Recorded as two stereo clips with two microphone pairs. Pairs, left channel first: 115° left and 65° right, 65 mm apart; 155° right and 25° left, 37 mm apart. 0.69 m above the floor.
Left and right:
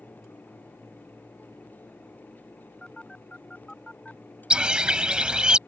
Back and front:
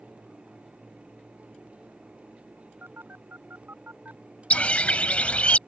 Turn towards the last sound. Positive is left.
turn(degrees=-140)